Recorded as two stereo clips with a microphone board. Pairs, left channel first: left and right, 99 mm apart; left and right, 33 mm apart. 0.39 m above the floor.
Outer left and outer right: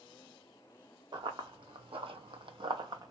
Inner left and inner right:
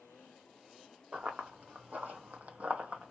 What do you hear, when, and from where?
1.1 s running footsteps: 50° right (ahead or behind), 1.3 m; by 3.1 s 40° right (ahead or behind), 0.9 m